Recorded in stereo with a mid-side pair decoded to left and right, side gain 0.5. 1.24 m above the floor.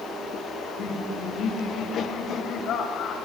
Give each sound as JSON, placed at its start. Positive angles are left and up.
{"t": 0.6, "sound": "laughter", "azimuth_deg": 60, "distance_m": 6.0}